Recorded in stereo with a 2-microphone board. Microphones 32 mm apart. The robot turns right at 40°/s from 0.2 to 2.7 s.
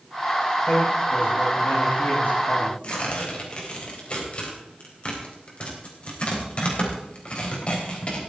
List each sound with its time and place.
0.7 s a man speaking: 30° left, 6.5 m; by 2.7 s 115° left, 6.5 m
2.8 s tearing paper: 45° left (ahead or behind), 3.5 m